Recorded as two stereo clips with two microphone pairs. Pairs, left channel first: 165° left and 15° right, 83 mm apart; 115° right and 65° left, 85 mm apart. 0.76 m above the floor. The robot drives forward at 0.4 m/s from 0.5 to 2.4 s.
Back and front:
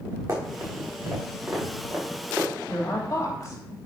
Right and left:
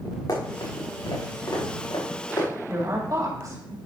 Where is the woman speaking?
115° left, 3.5 m.